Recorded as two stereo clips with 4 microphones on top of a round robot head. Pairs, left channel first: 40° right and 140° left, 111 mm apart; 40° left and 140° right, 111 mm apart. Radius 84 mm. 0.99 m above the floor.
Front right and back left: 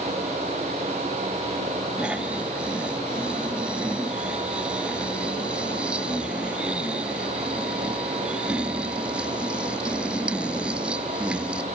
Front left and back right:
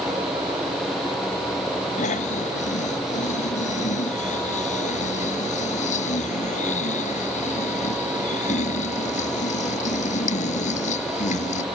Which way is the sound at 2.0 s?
55° left.